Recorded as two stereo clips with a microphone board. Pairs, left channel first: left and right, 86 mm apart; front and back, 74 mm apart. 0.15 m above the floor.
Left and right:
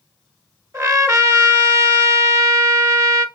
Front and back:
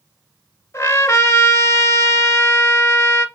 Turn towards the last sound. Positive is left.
turn(degrees=-45)